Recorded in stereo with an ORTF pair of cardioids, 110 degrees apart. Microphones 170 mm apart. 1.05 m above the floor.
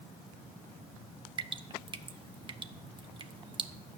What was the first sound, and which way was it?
Dripping, 30° right.